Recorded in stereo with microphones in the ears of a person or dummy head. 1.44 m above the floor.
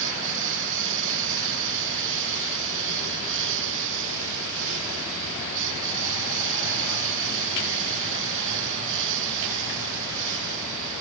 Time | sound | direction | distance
0.0 | a lawn mower | 65° right (ahead or behind) | ?